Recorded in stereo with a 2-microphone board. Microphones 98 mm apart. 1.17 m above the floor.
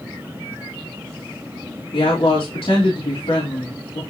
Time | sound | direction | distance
1.9 | a woman speaking | 75° left (ahead or behind) | 3 m